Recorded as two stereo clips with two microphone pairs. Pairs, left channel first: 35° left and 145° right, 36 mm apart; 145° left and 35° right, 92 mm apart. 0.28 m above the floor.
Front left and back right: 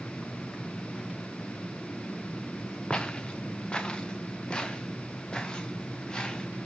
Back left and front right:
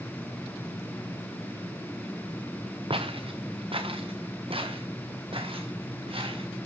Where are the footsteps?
25° right, 2 m; by 6.5 s 30° right, 5 m.